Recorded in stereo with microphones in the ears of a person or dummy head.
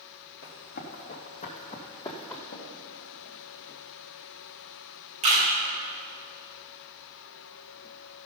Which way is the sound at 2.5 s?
55° left (ahead or behind).